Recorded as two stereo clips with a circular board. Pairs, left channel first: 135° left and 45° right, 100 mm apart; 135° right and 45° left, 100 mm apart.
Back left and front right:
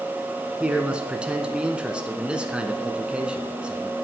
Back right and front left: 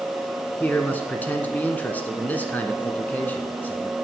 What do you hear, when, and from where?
0.6 s a man speaking: 105° right, 1.1 m